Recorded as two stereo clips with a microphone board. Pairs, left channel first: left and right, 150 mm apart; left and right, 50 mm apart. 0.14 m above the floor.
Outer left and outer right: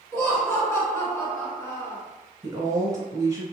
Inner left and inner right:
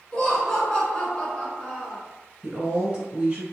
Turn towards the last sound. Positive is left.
turn(degrees=-20)  # may be behind; listen again after turning